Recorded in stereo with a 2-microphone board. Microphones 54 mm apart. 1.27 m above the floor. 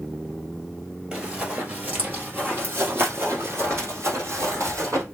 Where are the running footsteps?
20° right (ahead or behind), 1.8 m; by 5.0 s 65° right (ahead or behind), 2.5 m.